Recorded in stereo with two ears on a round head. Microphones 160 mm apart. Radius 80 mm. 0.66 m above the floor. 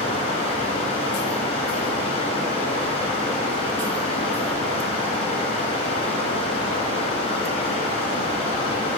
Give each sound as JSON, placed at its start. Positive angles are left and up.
{"t": 0.0, "sound": "running water", "side_deg": 35, "distance_m": 1.4}